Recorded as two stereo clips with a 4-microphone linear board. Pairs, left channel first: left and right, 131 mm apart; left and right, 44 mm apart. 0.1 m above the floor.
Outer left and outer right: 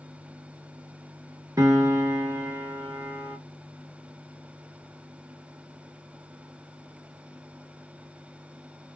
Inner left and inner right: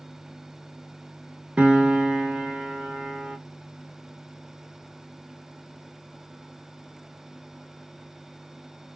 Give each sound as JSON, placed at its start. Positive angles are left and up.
{"t": 1.6, "sound": "a piano", "side_deg": -25, "distance_m": 0.9}